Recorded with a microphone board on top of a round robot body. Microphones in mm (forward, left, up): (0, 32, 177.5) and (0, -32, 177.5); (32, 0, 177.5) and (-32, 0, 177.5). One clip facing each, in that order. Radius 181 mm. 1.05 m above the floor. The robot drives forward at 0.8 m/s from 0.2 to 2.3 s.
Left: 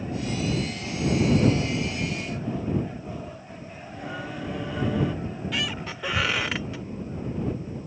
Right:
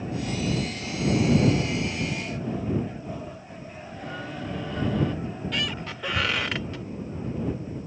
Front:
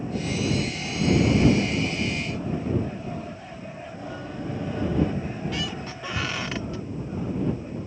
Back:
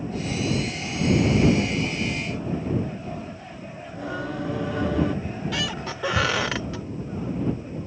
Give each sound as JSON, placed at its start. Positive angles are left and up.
{"t": 3.9, "sound": "singing", "azimuth_deg": 175}
{"t": 5.2, "sound": "a squeak", "azimuth_deg": 175}